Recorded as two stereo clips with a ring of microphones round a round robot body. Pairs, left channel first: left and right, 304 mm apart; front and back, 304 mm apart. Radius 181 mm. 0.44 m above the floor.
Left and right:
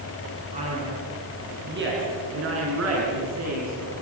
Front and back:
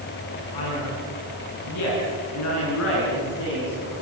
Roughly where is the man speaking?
Ahead.